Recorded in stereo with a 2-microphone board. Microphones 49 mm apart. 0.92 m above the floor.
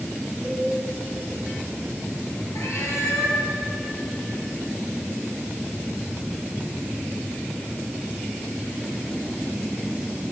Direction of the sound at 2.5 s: 80° left.